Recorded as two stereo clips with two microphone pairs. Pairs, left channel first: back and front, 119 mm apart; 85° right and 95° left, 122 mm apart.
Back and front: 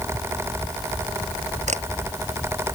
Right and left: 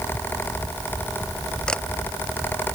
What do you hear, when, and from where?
1.7 s a camera shutter: straight ahead